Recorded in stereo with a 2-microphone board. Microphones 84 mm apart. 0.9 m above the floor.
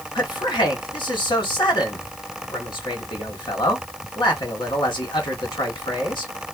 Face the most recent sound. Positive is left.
turn(degrees=75)  # may be behind; listen again after turning